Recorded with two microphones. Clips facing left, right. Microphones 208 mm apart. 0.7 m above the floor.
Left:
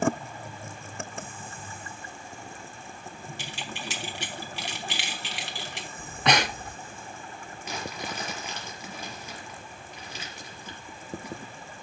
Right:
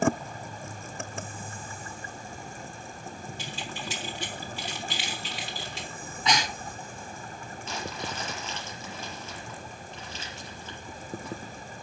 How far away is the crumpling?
About 5 m.